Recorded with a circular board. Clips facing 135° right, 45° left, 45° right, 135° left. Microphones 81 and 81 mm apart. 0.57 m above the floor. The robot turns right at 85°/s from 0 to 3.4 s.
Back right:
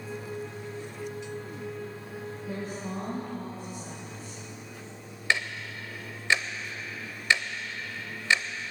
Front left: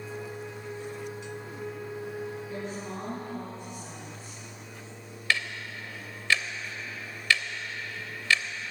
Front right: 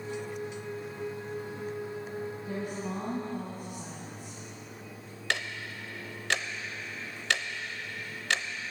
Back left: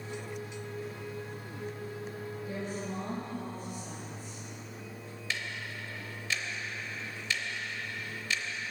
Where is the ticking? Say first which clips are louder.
Back right 1 dB, front right 5 dB; 65° right, 0.7 m.